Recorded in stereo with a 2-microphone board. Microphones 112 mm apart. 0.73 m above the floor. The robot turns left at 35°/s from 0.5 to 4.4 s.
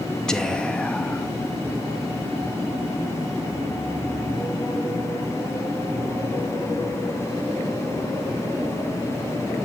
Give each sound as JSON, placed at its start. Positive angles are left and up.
{"t": 0.3, "sound": "whispering", "side_deg": 5, "distance_m": 0.8}